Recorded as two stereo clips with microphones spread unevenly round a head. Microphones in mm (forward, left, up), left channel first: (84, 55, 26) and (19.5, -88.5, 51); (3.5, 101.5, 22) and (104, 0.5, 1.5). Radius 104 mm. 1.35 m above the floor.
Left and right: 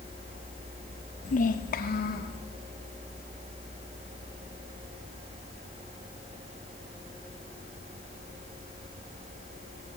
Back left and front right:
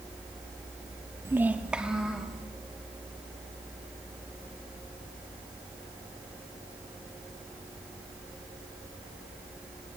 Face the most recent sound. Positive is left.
turn(degrees=45)